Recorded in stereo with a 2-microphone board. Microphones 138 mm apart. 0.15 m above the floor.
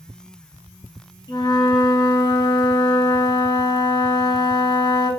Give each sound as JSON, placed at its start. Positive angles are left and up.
{"t": 1.3, "sound": "a flute", "side_deg": 30, "distance_m": 0.7}